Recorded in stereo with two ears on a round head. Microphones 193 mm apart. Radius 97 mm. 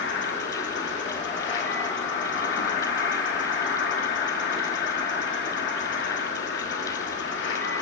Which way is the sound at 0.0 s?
55° left (ahead or behind).